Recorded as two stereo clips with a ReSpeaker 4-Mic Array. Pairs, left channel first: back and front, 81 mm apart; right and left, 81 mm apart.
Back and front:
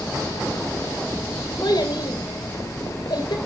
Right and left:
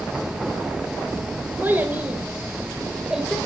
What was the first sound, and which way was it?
A child speaking, 155° left.